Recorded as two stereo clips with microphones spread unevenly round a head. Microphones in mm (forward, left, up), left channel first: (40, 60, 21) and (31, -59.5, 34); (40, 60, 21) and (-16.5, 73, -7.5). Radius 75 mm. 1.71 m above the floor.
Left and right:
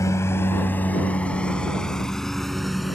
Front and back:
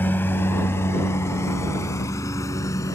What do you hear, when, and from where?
0.0 s a lawn mower: 20° left; by 3.0 s 5° right